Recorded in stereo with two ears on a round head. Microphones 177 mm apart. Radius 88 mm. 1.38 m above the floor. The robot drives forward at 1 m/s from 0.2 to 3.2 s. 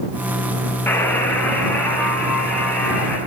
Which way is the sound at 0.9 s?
10° left (ahead or behind).